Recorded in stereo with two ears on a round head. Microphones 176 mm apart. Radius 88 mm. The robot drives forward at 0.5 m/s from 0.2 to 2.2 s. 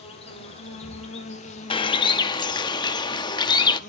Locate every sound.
0.0 s an insect: 30° left (ahead or behind), 3.5 m; by 3.9 s 40° left (ahead or behind), 3 m
1.7 s a bird: 25° left (ahead or behind), 0.6 m